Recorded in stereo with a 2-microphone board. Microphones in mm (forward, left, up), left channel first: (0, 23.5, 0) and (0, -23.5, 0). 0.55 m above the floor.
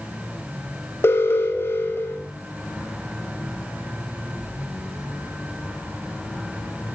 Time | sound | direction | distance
1.0 | an alarm | 60° left (ahead or behind) | 3.5 m